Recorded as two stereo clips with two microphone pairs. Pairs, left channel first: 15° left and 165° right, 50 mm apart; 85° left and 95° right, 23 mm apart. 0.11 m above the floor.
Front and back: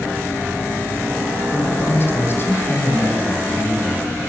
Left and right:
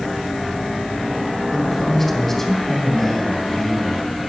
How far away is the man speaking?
About 2 m.